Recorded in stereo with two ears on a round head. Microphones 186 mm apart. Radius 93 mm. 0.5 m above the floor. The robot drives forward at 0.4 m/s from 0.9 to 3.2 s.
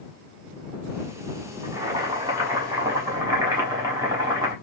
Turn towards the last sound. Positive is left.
turn(degrees=-15)  # may be behind; listen again after turning